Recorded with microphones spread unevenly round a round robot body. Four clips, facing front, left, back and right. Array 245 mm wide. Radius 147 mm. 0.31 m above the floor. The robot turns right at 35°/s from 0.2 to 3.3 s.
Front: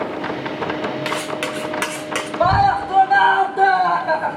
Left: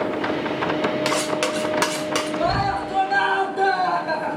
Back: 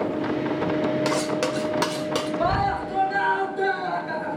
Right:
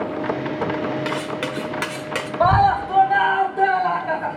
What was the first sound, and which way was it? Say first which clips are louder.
Cutlery clinking: left 3 dB, back 1 dB; 165° left.